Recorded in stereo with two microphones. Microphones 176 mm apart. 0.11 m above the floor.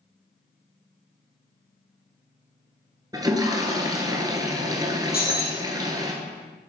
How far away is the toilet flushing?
About 1.0 m.